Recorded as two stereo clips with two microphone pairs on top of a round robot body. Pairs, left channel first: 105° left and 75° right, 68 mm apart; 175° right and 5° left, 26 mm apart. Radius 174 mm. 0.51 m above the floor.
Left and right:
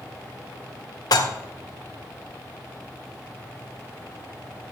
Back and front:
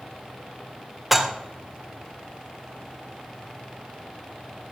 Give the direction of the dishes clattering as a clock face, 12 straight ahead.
9 o'clock.